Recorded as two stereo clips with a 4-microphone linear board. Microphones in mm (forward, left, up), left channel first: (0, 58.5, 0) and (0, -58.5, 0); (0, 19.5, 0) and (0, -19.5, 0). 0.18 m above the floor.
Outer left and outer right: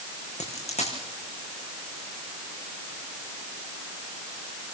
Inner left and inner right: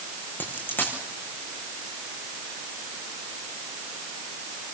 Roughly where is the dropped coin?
Left.